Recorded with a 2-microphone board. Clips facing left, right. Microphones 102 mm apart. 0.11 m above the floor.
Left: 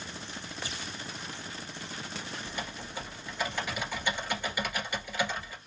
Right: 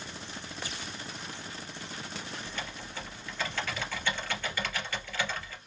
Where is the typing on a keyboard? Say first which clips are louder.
Left 1 dB; 15° left (ahead or behind), 2.0 m.